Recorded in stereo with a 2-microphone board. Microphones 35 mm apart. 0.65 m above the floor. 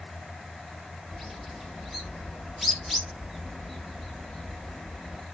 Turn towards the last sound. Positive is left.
turn(degrees=-5)  # may be behind; listen again after turning